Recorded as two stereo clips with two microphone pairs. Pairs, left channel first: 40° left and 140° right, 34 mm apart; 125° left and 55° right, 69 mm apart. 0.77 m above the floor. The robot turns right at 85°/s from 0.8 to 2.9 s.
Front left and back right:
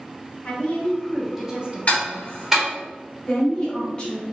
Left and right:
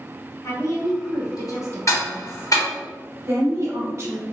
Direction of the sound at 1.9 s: 90° left.